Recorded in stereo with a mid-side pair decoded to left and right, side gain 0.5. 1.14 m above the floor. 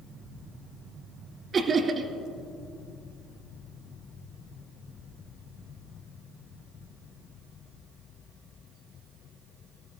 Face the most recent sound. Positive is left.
turn(degrees=-45)